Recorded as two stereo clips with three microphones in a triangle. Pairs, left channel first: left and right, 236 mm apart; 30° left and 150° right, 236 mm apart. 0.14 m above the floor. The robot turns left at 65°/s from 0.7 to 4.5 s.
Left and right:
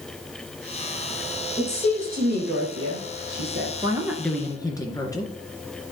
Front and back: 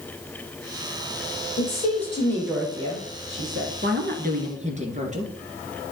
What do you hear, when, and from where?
1.6 s a woman speaking: 5° right, 5 m; by 3.7 s 140° right, 5 m
3.8 s a woman speaking: 155° right, 2 m; by 5.3 s 160° left, 2 m